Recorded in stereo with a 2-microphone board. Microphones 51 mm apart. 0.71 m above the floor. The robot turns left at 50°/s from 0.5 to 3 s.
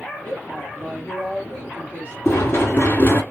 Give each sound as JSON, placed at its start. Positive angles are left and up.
{"t": 0.2, "sound": "a woman speaking", "azimuth_deg": 45, "distance_m": 1.8}
{"t": 2.2, "sound": "running footsteps", "azimuth_deg": 95, "distance_m": 1.2}